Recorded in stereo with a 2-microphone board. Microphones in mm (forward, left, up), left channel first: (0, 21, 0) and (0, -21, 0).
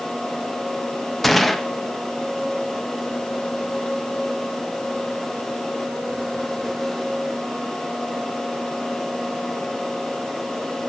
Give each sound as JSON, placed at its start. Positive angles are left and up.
{"t": 1.2, "sound": "a gunshot", "side_deg": 5, "distance_m": 0.9}